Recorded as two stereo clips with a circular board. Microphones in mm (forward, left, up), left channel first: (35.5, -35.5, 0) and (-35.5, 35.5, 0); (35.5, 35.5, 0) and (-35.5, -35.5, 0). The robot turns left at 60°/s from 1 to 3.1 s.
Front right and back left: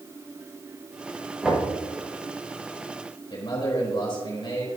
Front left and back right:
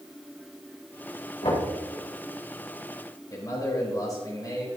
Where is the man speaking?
10° right, 4 m.